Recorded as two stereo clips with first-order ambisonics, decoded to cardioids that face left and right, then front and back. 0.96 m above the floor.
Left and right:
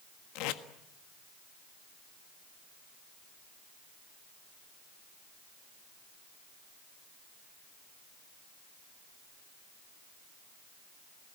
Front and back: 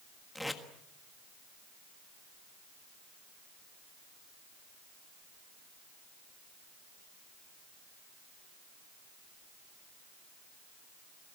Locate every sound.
0.3 s tape being pulled: 85° left, 1.5 m